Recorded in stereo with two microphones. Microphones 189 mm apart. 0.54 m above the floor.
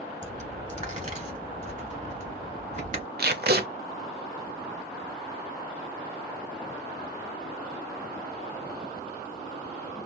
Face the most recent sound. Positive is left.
turn(degrees=-60)  # may be behind; listen again after turning